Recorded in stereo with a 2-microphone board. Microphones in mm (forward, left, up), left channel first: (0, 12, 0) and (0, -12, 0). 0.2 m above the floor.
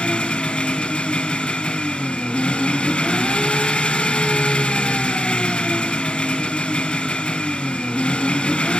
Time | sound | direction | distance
0.0 | an engine running | 45° left (ahead or behind) | 1.0 m